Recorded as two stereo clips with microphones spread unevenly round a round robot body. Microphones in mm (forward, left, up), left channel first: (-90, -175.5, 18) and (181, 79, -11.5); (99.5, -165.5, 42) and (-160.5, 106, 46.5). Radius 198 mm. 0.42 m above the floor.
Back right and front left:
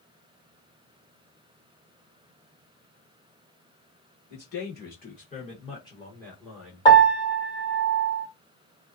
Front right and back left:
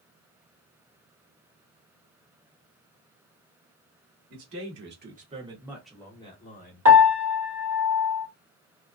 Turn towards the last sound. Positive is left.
turn(degrees=145)